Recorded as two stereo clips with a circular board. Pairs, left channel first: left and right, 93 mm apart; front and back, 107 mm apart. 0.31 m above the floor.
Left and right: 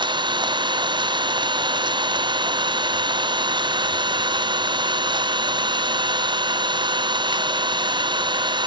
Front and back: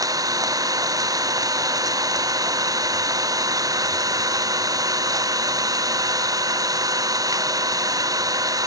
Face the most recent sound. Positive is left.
turn(degrees=-125)